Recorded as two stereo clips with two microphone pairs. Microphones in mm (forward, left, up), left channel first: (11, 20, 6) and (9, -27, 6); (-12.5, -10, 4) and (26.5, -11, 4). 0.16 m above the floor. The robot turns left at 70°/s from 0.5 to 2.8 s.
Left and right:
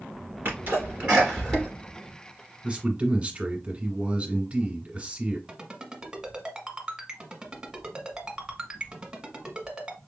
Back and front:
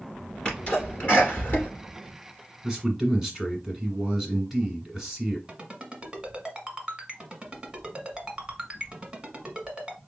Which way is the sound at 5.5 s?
30° right.